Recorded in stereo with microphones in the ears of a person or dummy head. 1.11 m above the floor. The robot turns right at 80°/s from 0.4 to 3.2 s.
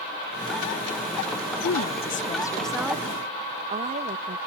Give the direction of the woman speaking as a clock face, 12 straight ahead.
9 o'clock.